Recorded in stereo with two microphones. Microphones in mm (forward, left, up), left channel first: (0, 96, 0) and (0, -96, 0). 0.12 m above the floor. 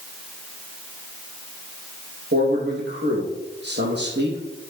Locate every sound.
2.3 s a man speaking: 65° right (ahead or behind), 5 m